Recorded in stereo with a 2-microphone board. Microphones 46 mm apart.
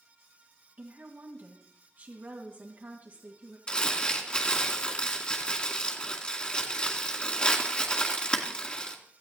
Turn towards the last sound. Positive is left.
turn(degrees=20)  # may be behind; listen again after turning